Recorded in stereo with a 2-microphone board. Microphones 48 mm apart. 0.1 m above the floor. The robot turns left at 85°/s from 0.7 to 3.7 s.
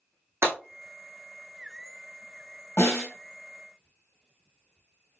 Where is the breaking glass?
70° right (ahead or behind), 2.5 m.